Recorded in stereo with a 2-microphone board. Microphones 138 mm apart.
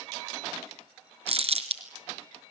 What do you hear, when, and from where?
1.3 s crumpling: 50° right (ahead or behind), 1.7 m